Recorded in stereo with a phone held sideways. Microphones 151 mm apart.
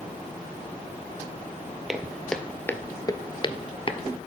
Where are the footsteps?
5° right (ahead or behind), 1.2 m; by 4.0 s 35° left (ahead or behind), 1.1 m.